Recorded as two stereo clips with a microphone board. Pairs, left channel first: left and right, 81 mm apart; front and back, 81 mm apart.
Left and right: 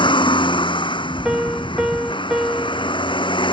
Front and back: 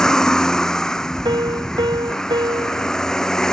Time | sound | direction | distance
0.0 | a vehicle | 80° left | ?
1.2 | a piano | 170° right | ?